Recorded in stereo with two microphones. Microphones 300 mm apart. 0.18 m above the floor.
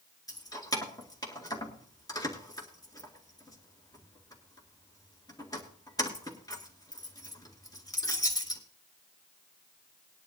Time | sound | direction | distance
0.3 | keys jangling | 10° left (ahead or behind) | 2 m